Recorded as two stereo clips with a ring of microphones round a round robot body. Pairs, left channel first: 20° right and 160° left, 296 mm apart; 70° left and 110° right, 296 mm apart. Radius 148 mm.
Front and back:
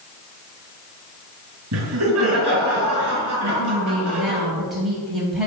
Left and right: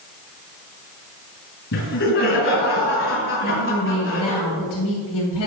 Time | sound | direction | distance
1.7 | laughter | 115° left | 3.5 m
3.4 | a woman speaking | 70° left | 3 m